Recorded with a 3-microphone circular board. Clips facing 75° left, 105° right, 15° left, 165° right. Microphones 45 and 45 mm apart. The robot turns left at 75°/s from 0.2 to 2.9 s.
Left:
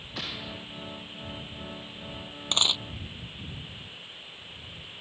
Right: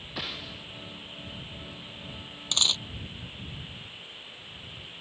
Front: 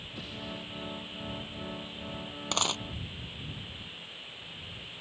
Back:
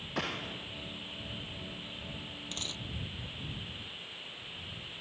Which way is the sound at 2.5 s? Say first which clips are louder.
Left 1 dB, front 12 dB; 15° left.